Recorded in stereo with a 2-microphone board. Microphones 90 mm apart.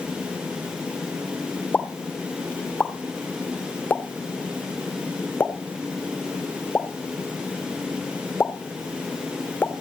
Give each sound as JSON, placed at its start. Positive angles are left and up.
{"t": 1.7, "sound": "a pop", "side_deg": 20, "distance_m": 1.3}